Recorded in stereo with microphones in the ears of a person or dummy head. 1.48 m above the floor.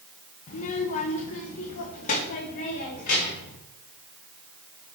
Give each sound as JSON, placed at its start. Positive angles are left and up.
{"t": 0.5, "sound": "a child speaking", "side_deg": 45, "distance_m": 0.8}